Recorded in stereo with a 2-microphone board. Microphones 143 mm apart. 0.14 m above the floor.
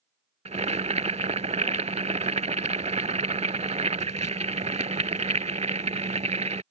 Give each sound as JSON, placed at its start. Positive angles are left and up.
{"t": 0.5, "sound": "boiling", "side_deg": -55}